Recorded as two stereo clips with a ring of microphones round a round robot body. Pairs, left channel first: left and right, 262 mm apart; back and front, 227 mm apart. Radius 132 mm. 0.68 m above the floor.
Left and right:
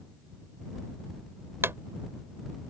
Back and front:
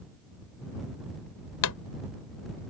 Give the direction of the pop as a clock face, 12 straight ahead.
6 o'clock.